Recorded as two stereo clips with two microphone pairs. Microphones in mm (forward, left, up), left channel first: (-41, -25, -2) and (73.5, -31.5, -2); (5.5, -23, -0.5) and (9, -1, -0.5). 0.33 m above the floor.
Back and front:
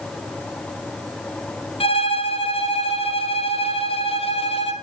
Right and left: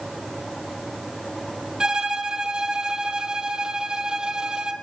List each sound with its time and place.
1.8 s a violin: 140° left, 1.8 m